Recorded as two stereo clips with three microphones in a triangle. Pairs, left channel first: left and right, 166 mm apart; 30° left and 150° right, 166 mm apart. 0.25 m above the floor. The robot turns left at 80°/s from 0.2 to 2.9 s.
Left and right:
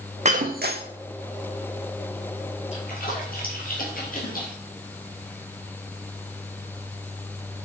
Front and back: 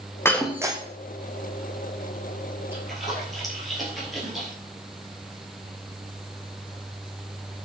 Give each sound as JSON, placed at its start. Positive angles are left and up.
{"t": 0.2, "sound": "breaking glass", "azimuth_deg": -45, "distance_m": 1.0}
{"t": 2.7, "sound": "a splash", "azimuth_deg": 135, "distance_m": 3.0}